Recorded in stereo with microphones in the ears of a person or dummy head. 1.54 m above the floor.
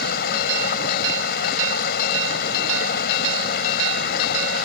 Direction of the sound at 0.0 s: 55° left (ahead or behind).